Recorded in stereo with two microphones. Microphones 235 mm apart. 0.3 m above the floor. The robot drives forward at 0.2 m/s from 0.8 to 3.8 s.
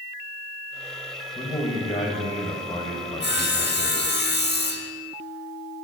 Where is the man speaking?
25° left (ahead or behind), 1.0 m.